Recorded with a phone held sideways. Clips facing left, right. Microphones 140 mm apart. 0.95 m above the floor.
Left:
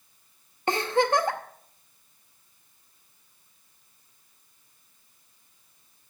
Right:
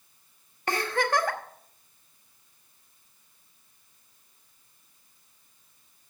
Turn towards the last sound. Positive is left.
turn(degrees=25)  # may be behind; listen again after turning